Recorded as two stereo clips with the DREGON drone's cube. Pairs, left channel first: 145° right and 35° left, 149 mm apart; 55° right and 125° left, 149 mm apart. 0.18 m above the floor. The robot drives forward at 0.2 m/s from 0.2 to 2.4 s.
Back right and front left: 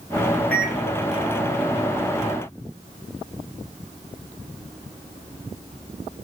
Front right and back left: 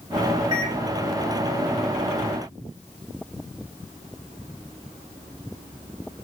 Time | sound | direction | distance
0.5 | a microwave | 145° left | 1.5 m